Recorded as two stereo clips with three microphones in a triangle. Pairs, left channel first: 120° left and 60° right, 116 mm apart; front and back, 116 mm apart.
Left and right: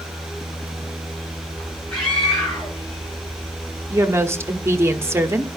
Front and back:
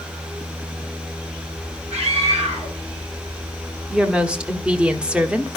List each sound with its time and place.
1.9 s a scream: 160° right, 8 m
3.9 s a woman speaking: 105° right, 1.1 m